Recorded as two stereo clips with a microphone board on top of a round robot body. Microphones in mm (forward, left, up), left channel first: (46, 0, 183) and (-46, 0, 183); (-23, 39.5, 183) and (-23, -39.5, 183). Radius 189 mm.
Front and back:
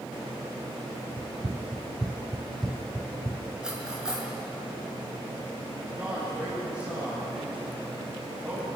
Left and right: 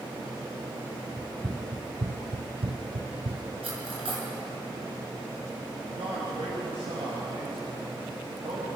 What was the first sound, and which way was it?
Running footsteps, 175° left.